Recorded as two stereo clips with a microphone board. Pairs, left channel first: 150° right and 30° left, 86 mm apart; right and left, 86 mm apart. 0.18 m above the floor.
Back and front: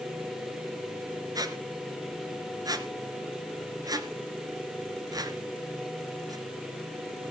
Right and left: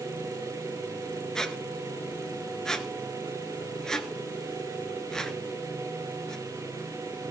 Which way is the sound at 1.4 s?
10° right.